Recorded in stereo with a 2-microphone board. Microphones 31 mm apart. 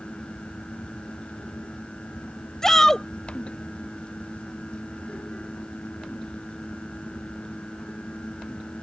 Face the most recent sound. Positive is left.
turn(degrees=15)  # may be behind; listen again after turning